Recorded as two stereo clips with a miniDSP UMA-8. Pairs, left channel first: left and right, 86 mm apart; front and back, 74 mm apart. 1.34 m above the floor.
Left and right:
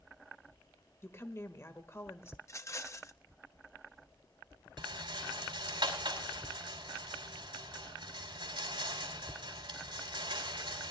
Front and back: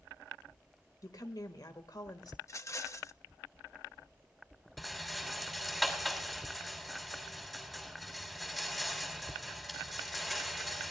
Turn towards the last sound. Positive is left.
turn(degrees=-90)